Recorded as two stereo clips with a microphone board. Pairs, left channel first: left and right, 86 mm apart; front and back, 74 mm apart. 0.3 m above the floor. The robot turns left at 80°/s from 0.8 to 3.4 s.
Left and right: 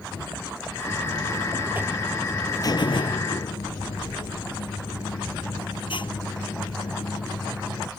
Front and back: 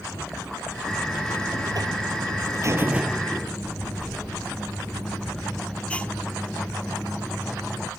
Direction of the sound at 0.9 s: 85° right.